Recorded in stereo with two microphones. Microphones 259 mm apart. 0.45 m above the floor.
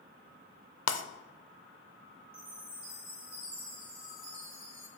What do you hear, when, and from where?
0.9 s breaking glass: 75° left (ahead or behind), 0.5 m
2.3 s a chime: 55° right (ahead or behind), 2.5 m